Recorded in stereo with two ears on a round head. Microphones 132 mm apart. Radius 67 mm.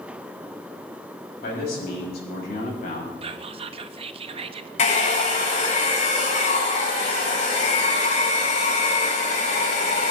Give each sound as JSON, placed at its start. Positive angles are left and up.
{"t": 1.4, "sound": "a man speaking", "side_deg": 75, "distance_m": 6.0}
{"t": 3.2, "sound": "whispering", "side_deg": -40, "distance_m": 0.9}
{"t": 4.8, "sound": "a hair dryer", "side_deg": 50, "distance_m": 7.0}